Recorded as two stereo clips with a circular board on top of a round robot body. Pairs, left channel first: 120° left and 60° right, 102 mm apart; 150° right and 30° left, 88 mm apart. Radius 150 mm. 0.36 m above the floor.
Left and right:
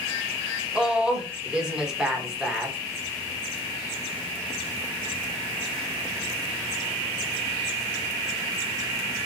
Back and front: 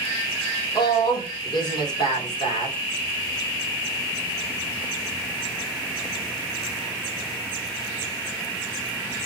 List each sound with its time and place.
0.8 s a woman speaking: 140° right, 1.1 m